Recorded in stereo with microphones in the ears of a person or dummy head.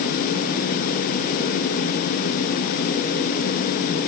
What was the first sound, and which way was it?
Only background noise.